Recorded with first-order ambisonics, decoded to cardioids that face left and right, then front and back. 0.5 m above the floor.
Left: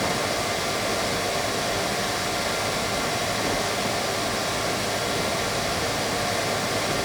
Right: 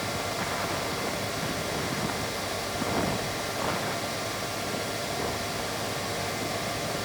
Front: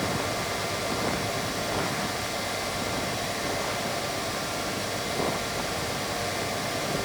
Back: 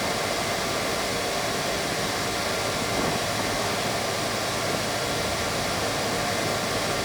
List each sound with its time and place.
Only background noise.